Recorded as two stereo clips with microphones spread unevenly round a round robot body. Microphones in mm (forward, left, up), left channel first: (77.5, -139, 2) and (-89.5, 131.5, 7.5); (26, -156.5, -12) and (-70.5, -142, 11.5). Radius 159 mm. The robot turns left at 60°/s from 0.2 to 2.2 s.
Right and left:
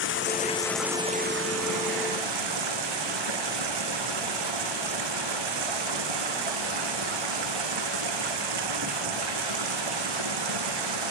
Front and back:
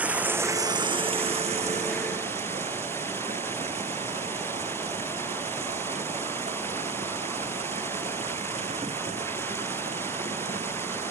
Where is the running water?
115° right; by 11.1 s 125° left.